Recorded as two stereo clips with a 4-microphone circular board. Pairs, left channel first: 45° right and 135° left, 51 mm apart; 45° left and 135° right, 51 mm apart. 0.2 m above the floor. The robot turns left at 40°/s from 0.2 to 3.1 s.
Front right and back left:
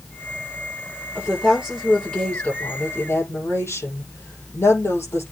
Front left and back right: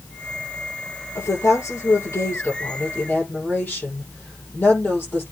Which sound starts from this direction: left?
A woman speaking, at 1.1 s.